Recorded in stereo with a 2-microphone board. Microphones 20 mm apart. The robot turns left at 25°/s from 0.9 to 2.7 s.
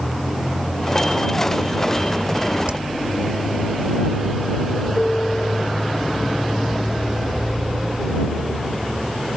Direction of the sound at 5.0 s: 40° left (ahead or behind).